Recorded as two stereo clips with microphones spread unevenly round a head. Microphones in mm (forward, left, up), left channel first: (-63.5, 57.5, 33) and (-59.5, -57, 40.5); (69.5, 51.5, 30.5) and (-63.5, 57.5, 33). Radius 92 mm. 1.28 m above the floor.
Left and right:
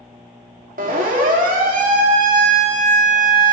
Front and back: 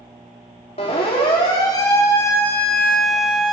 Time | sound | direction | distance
0.8 | a siren | 60° right | 2.5 m